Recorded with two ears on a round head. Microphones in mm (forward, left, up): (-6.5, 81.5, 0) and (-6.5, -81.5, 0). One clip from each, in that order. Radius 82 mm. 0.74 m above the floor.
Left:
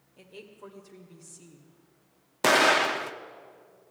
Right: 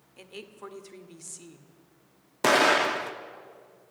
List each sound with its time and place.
0.2 s a woman speaking: 45° right (ahead or behind), 1.8 m
2.4 s an explosion: 10° left (ahead or behind), 0.7 m